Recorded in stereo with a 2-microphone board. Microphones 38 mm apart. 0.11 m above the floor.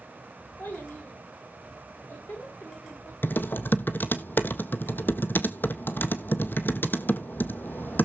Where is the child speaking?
60° left (ahead or behind), 6.5 m.